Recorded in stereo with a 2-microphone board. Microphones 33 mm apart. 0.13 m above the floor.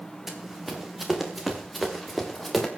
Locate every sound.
0.3 s running footsteps: 5° right (ahead or behind), 3.5 m; by 2.7 s 5° left (ahead or behind), 4.5 m